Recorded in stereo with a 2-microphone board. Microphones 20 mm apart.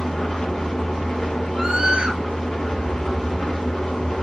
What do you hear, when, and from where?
0.0 s an engine running: 75° left (ahead or behind), 2.0 m
1.6 s a scream: 65° right (ahead or behind), 1.0 m